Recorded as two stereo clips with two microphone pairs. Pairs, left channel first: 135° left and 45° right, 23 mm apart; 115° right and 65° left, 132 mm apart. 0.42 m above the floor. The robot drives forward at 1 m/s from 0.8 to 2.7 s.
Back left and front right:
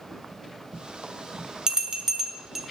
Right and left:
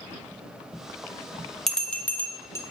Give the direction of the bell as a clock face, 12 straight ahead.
1 o'clock.